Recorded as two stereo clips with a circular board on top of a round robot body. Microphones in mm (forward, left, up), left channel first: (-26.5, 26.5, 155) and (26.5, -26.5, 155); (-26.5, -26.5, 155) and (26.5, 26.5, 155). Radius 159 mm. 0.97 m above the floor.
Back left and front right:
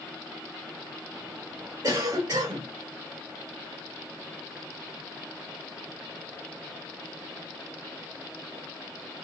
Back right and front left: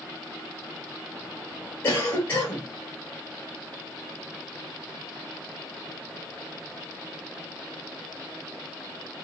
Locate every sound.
1.8 s a cough: 75° right, 2.5 m